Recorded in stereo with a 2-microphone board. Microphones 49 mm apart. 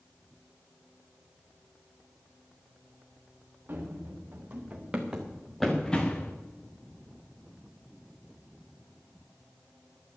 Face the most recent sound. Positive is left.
turn(degrees=30)  # may be behind; listen again after turning